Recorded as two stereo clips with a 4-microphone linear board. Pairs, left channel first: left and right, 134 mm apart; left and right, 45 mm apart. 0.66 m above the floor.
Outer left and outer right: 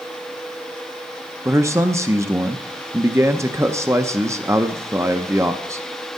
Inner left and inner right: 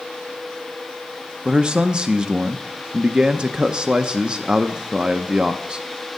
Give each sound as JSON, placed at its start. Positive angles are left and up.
{"t": 1.4, "sound": "a man speaking", "side_deg": -20, "distance_m": 0.5}